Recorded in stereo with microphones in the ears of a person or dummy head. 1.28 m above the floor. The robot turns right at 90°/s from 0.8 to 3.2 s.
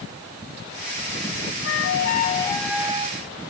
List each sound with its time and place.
1.6 s a flute: 85° left; by 3.2 s 135° right